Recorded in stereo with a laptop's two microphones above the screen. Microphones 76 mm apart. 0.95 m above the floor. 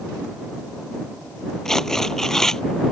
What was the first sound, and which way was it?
Tearing paper, 5° left (ahead or behind).